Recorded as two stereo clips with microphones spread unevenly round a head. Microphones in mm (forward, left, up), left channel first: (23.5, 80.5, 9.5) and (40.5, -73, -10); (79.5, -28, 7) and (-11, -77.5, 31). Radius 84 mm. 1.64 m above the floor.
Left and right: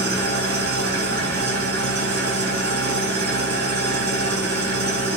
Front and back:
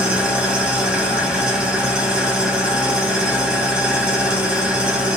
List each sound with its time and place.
0.0 s an engine running: 80° right, 1.3 m